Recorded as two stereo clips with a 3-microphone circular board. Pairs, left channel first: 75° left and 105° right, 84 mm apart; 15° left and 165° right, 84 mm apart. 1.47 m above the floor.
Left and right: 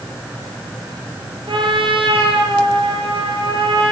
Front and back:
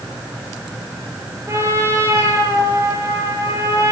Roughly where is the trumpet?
Right.